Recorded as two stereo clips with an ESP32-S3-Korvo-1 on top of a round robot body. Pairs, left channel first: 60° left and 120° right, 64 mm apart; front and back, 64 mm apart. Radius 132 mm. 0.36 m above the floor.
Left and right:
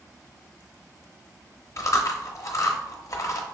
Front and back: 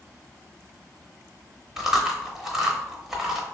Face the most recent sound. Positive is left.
turn(degrees=95)